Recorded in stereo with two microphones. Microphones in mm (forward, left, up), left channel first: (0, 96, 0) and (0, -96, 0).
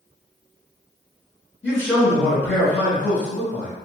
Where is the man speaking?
10° left (ahead or behind), 1.2 m.